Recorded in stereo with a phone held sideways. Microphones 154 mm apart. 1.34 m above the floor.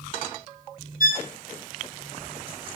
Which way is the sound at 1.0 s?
65° left (ahead or behind).